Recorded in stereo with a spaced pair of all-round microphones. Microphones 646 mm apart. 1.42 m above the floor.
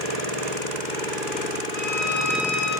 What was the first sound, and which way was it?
A violin, 20° left (ahead or behind).